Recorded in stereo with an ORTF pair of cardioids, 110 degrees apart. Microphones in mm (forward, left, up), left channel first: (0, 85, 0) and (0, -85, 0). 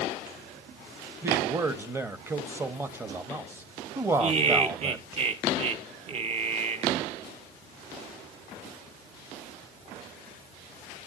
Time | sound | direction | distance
1.2 | a man speaking | 15° right | 1.0 m
4.2 | laughter | 40° right | 1.2 m